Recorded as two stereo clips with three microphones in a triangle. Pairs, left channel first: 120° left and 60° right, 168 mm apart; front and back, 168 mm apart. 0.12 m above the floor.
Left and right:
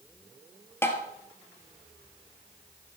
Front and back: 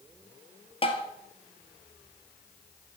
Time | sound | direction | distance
0.8 | tapping | 45° left | 1.6 m